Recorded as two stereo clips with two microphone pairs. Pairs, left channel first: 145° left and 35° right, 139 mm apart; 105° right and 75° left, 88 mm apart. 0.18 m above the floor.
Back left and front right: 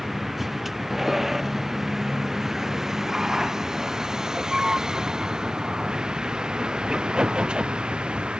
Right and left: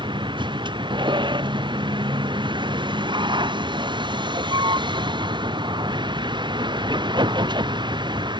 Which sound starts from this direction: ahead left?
A vehicle, at 0.0 s.